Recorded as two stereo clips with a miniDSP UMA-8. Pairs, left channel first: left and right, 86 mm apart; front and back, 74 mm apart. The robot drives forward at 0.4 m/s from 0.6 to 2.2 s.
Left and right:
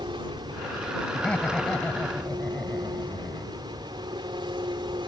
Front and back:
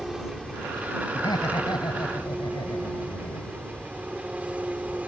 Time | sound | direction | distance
0.0 | an engine running | 100° right | ?
1.1 | laughter | 10° left | ?